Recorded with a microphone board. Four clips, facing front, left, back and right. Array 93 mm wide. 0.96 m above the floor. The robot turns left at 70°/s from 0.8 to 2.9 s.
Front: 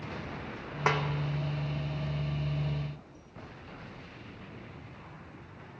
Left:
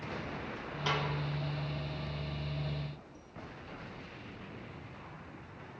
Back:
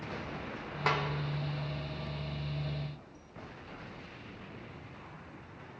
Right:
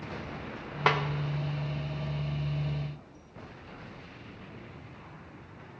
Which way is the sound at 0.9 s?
70° right.